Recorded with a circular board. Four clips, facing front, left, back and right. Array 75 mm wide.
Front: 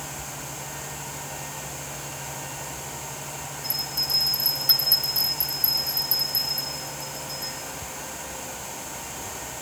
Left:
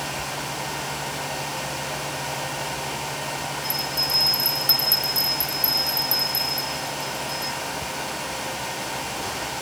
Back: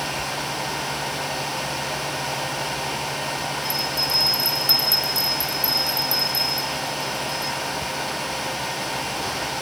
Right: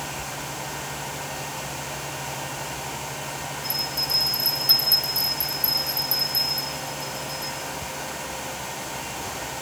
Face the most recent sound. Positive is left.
turn(degrees=130)